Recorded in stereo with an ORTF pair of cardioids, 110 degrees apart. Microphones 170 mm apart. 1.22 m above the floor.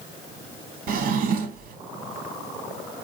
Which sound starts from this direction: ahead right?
A drawer, at 0.9 s.